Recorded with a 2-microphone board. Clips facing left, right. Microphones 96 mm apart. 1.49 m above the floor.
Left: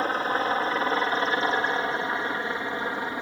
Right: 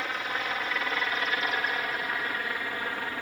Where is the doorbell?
No doorbell in this recording.